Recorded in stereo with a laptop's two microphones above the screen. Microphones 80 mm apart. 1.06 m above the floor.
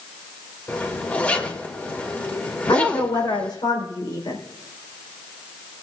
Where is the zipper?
20° left (ahead or behind), 1.7 m.